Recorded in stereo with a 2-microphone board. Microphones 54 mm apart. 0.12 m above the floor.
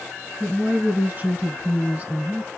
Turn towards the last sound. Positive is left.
turn(degrees=-25)  # may be behind; listen again after turning